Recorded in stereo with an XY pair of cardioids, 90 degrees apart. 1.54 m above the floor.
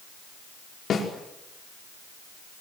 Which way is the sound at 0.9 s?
55° left.